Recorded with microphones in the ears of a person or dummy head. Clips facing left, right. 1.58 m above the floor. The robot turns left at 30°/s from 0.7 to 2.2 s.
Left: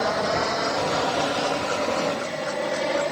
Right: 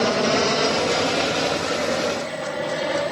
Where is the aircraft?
35° right (ahead or behind); by 3.1 s 5° right (ahead or behind).